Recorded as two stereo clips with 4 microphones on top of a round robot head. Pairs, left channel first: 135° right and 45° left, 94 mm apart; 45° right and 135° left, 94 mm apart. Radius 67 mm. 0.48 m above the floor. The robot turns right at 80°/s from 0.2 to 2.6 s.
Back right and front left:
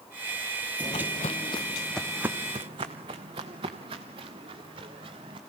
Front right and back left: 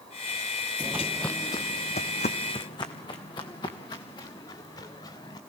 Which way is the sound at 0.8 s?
175° left.